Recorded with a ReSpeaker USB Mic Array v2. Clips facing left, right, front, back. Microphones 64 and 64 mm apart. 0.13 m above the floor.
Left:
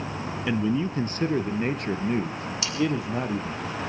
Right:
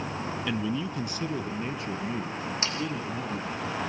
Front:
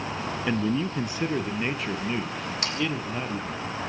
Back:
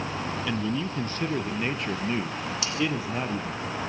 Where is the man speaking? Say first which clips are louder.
Left 7 dB, front 5 dB; 40° left, 1.4 m; by 3.6 s 100° left, 3.5 m.